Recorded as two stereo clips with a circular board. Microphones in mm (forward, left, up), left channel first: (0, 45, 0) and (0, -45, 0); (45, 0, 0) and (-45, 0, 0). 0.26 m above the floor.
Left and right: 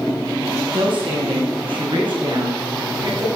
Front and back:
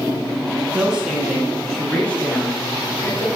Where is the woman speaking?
105° right, 2.5 m; by 3.4 s 60° right, 3.5 m.